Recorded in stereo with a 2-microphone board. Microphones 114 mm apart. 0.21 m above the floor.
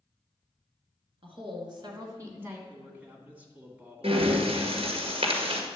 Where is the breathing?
60° right (ahead or behind), 1.8 m.